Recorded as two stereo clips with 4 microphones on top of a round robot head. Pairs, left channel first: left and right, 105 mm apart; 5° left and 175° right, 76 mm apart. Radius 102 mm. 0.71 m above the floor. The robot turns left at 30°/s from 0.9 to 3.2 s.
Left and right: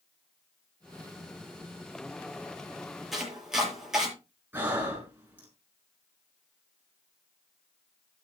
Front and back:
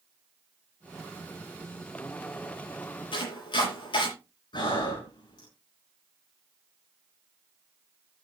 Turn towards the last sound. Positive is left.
turn(degrees=-20)